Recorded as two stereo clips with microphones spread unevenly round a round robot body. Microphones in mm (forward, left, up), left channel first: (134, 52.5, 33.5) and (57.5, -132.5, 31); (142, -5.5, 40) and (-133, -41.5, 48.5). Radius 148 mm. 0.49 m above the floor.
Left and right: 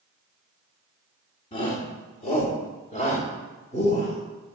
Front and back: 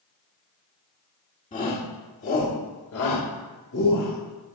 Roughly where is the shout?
Ahead left.